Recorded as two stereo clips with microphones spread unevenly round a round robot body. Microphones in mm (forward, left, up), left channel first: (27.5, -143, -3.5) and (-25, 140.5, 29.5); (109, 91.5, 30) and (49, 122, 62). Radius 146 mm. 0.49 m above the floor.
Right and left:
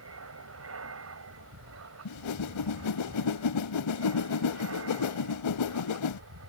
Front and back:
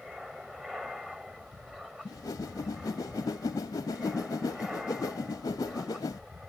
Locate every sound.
0.0 s an aircraft: 65° left
2.0 s a whoosh: 55° right